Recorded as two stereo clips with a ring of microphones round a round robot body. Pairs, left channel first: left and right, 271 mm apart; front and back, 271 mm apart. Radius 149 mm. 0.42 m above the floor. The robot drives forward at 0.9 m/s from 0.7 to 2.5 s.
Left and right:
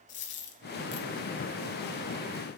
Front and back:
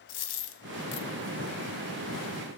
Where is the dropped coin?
30° left, 0.9 m; by 1.1 s 50° left, 0.6 m.